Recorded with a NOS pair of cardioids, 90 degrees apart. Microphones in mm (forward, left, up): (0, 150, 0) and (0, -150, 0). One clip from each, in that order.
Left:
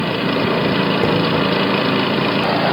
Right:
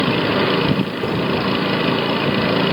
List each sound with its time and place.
1.0 s a thud: 45° left, 2 m